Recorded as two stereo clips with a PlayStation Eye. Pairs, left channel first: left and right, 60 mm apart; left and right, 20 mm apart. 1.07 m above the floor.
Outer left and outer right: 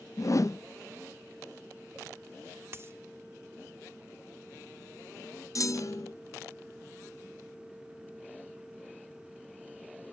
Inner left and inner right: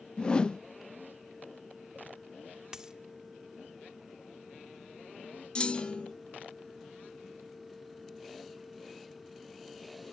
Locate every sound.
0.2 s a whoosh: 60° left (ahead or behind), 0.5 m
2.7 s a dropped coin: 45° right (ahead or behind), 0.9 m
5.5 s a clunk: 65° left (ahead or behind), 0.6 m